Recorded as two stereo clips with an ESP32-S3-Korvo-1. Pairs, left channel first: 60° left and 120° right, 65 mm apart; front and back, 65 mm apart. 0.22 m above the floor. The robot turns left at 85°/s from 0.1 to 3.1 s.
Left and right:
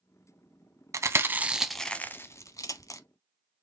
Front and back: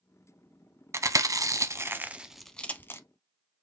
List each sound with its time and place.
0.9 s chewing: 145° right, 0.6 m; by 3.0 s 40° left, 0.6 m